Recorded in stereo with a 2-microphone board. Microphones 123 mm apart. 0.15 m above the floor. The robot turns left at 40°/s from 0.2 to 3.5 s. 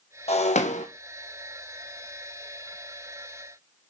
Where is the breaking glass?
60° left (ahead or behind), 1.0 m; by 0.8 s 80° left, 1.0 m.